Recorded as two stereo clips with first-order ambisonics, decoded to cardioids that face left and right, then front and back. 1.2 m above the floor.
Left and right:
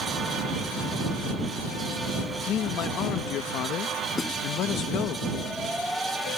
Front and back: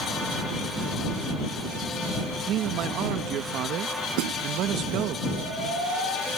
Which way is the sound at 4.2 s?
165° left.